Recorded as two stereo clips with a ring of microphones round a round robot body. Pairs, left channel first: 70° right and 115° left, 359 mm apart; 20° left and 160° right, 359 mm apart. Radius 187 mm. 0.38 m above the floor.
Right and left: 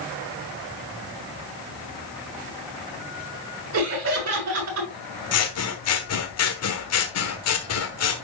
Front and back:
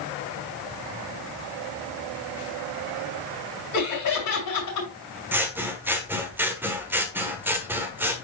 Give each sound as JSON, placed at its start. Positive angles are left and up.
{"t": 3.7, "sound": "laughter", "azimuth_deg": 60, "distance_m": 5.5}
{"t": 5.3, "sound": "scissors", "azimuth_deg": -75, "distance_m": 1.4}